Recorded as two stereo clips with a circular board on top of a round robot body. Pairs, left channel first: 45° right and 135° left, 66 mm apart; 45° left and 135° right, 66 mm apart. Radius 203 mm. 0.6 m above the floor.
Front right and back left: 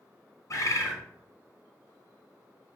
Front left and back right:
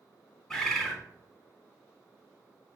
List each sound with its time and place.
0.5 s a bird: 35° right, 1.6 m